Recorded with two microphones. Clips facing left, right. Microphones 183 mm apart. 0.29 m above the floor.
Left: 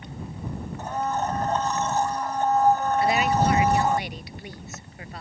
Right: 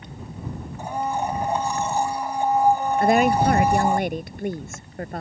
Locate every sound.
0.8 s a blender: 10° right (ahead or behind)
3.0 s a woman speaking: 50° right (ahead or behind)